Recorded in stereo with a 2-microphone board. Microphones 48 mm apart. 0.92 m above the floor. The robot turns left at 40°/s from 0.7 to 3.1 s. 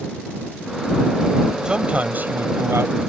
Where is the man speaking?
20° right; by 3.0 s 70° right.